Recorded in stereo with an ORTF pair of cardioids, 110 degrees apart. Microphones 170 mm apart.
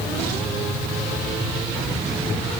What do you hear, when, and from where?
Only background noise.